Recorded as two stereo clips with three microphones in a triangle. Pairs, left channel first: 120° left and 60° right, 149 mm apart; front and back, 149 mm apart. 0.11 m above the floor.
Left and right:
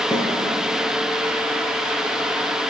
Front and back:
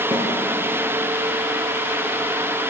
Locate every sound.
0.1 s a snare drum: 165° left, 1.9 m